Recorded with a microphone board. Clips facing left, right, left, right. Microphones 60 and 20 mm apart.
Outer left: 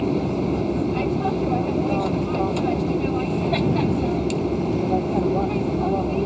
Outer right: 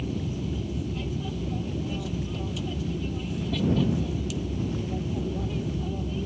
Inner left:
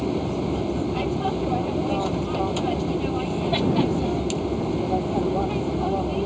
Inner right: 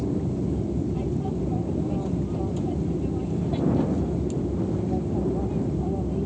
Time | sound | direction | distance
0.0 | an aircraft | 60° left (ahead or behind) | ?